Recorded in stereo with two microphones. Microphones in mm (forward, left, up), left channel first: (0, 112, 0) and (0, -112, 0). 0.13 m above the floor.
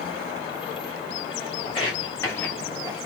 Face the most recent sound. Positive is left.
turn(degrees=-15)  # may be behind; listen again after turning